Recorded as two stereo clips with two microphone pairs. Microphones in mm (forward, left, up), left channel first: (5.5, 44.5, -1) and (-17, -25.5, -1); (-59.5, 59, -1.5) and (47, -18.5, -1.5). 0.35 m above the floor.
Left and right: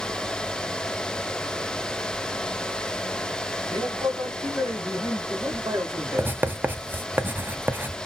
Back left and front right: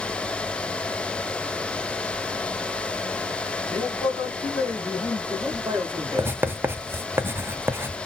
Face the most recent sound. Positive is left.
turn(degrees=-90)